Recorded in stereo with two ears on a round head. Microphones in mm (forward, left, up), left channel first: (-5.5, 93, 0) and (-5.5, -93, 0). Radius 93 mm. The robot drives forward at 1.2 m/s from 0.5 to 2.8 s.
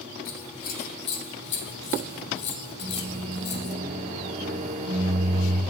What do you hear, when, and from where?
0.2 s scissors: 40° left (ahead or behind), 2.5 m; by 3.8 s 55° left (ahead or behind), 2 m
2.8 s a microwave: 35° right (ahead or behind), 2.0 m